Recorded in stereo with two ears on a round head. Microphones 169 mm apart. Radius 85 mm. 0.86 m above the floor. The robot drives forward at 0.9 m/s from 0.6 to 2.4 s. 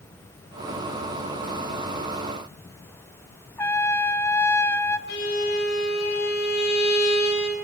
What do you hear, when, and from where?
3.6 s a trumpet: 10° left (ahead or behind), 0.9 m
5.1 s a violin: 60° left (ahead or behind), 6 m